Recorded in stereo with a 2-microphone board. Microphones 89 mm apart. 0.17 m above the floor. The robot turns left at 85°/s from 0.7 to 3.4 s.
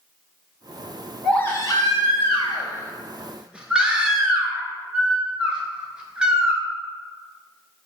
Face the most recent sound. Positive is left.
turn(degrees=-15)